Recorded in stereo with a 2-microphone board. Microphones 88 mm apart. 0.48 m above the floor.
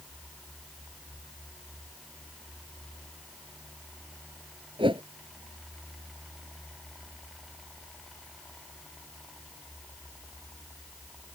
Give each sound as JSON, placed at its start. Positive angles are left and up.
{"t": 4.8, "sound": "a whoosh", "side_deg": -75}